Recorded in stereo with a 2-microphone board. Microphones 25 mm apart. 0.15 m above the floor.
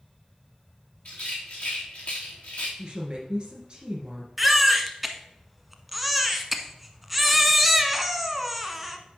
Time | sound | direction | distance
1.1 | a rattle | 60° left (ahead or behind) | 3 m
2.8 | a woman speaking | 40° right (ahead or behind) | 2 m
4.4 | a baby crying | 5° right (ahead or behind) | 0.8 m